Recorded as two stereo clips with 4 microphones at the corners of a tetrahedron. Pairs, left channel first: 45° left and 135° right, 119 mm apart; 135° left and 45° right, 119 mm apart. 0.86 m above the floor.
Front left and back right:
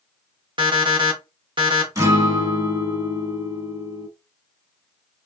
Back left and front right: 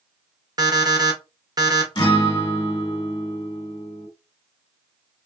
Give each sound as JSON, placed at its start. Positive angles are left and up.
{"t": 0.6, "sound": "an alarm clock", "azimuth_deg": -100, "distance_m": 0.8}
{"t": 1.9, "sound": "a guitar", "azimuth_deg": 180, "distance_m": 1.1}